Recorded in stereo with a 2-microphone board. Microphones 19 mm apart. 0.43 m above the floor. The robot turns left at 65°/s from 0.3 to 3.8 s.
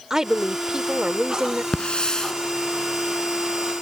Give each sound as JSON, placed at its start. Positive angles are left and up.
{"t": 0.1, "sound": "a woman speaking", "azimuth_deg": -40}
{"t": 1.7, "sound": "a hiss", "azimuth_deg": 65}